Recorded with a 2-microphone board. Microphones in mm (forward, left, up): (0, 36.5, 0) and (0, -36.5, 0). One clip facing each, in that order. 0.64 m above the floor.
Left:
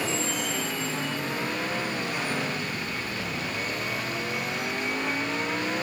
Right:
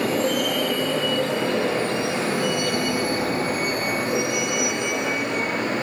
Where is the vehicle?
55° right (ahead or behind); by 5.8 s 80° right.